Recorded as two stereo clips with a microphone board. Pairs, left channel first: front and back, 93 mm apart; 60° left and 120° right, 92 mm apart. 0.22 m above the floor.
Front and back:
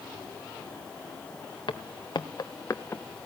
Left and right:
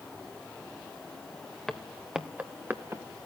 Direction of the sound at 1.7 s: 30° right.